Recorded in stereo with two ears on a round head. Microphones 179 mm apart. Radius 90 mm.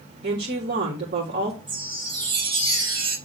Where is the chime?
25° right (ahead or behind), 4 m.